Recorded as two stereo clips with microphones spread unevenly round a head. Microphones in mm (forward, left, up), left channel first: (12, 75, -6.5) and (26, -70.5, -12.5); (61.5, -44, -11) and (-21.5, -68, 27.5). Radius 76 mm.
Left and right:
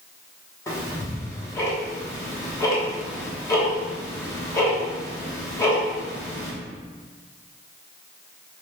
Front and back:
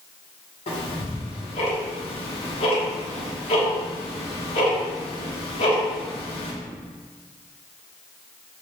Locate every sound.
0.7 s ticking: 35° left, 1.1 m